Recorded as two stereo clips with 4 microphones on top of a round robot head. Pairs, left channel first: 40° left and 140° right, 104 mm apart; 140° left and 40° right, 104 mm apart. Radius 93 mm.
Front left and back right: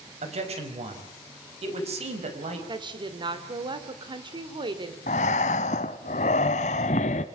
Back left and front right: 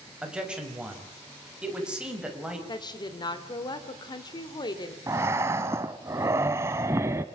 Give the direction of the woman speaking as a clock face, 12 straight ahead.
6 o'clock.